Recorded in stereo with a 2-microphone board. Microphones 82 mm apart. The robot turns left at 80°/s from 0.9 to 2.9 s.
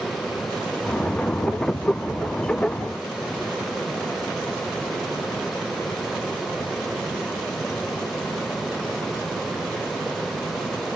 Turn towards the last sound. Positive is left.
No sound to turn to.